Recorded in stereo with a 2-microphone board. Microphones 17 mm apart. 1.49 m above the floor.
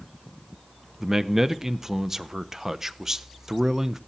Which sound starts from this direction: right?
A man speaking, at 1.0 s.